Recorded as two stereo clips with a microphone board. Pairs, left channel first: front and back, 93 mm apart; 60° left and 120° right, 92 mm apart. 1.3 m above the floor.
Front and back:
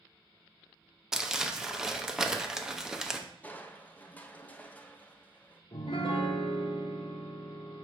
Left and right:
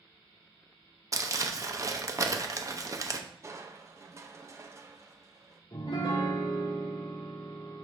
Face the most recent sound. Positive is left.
turn(degrees=25)